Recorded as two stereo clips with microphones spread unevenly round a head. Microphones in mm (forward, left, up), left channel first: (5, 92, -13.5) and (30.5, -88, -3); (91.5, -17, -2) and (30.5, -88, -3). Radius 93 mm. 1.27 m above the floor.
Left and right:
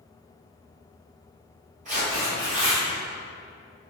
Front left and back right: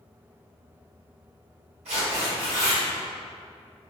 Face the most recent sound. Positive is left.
turn(degrees=-140)